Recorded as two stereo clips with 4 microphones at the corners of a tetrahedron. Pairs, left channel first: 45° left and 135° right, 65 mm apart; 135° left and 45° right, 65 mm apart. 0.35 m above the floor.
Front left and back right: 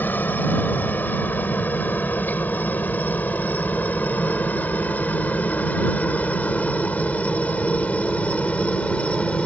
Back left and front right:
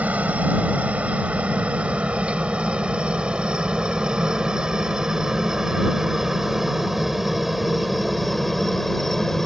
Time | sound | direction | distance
0.0 | a helicopter | 5° left | ?